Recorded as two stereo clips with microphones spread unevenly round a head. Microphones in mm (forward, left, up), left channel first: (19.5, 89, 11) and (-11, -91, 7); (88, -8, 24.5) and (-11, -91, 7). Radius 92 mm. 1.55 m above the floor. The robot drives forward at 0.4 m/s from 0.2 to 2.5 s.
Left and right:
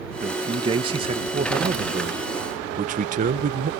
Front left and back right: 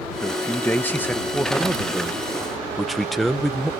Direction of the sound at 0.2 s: 30° right.